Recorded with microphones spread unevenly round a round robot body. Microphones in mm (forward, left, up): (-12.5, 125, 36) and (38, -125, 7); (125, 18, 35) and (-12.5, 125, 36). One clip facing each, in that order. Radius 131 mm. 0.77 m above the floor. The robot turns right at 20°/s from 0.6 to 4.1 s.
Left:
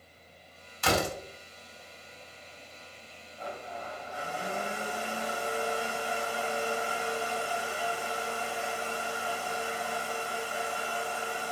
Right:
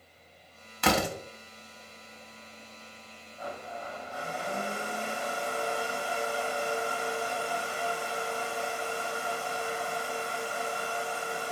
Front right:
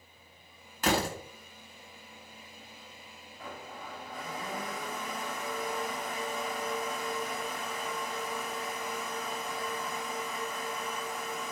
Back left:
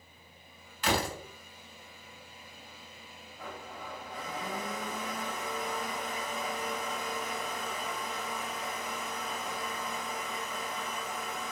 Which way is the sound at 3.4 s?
160° right.